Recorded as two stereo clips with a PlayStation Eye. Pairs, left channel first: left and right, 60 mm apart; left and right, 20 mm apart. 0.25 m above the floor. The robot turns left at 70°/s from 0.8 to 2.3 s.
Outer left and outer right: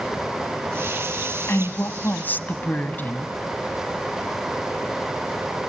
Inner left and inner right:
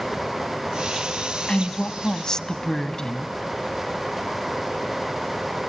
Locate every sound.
1.5 s a woman speaking: 100° left, 1.6 m; by 3.4 s 45° left, 1.6 m